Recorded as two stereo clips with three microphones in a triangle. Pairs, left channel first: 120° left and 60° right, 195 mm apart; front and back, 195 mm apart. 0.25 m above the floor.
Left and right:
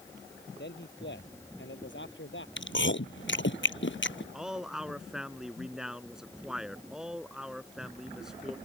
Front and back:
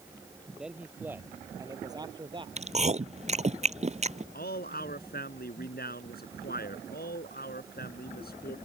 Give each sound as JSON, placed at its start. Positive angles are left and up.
{"t": 0.6, "sound": "a man speaking", "azimuth_deg": 95}
{"t": 2.6, "sound": "chewing", "azimuth_deg": 125}
{"t": 4.3, "sound": "a man speaking", "azimuth_deg": 25}